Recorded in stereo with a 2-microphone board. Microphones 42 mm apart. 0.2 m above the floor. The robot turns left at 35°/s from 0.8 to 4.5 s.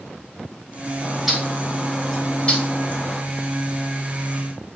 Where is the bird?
10° right (ahead or behind), 0.8 m; by 3.2 s 40° left (ahead or behind), 0.8 m.